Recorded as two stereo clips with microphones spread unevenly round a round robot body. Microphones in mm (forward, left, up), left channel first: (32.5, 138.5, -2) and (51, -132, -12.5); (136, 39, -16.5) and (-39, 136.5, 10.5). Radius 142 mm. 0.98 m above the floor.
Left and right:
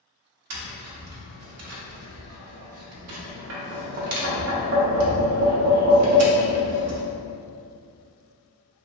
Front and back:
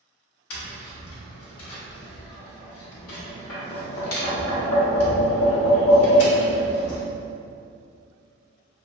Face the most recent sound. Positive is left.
turn(degrees=-50)